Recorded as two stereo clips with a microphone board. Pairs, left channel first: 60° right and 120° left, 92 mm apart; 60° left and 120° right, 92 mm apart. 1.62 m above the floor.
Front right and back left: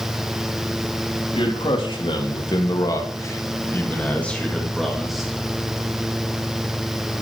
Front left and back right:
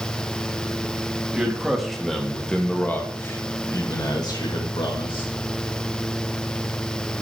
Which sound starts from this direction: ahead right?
A man speaking, at 1.4 s.